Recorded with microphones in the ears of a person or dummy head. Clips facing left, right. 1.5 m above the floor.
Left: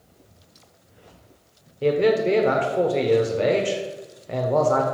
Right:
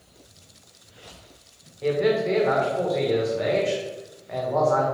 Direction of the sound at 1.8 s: 45° left (ahead or behind).